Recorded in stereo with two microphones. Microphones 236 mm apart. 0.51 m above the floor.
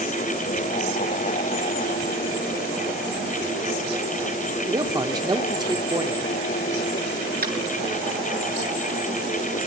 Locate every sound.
4.7 s a man speaking: 20° right (ahead or behind), 1.3 m
7.4 s tapping: 45° right (ahead or behind), 7.5 m